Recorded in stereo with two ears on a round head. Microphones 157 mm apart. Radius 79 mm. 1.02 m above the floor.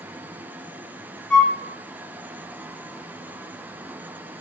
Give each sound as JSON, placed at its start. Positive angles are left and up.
{"t": 1.3, "sound": "a flute", "side_deg": 5, "distance_m": 0.6}